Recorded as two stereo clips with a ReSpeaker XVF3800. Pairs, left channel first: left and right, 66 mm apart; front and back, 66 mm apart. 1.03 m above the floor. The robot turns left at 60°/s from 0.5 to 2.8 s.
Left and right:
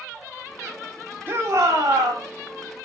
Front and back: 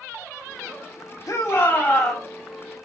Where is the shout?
30° right, 3 m; by 2.3 s 95° right, 3 m.